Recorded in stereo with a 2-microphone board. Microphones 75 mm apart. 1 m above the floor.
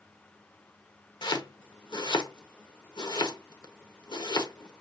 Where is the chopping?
75° left (ahead or behind), 0.9 m.